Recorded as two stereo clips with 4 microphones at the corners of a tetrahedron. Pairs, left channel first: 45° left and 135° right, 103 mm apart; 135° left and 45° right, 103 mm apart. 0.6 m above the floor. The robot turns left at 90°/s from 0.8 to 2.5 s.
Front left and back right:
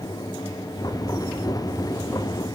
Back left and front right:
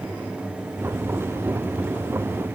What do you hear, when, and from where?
Only background noise.